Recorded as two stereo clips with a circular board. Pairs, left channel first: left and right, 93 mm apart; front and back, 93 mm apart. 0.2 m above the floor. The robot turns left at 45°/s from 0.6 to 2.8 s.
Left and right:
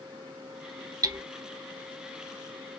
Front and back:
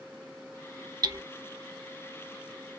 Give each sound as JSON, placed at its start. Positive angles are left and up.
{"t": 1.0, "sound": "hammering", "azimuth_deg": -140, "distance_m": 0.8}